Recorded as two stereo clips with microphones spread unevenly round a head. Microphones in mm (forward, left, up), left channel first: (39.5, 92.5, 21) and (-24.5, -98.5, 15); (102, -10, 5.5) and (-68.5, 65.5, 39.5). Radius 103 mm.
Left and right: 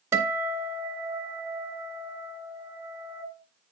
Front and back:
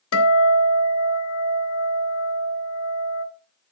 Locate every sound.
0.1 s a guitar: 30° right, 1.4 m